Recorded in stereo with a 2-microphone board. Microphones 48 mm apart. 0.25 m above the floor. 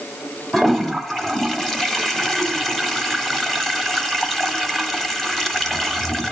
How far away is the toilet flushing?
About 0.9 m.